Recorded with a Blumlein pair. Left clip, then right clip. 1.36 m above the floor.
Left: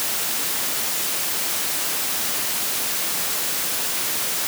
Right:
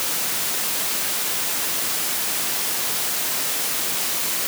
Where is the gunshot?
No gunshot in this recording.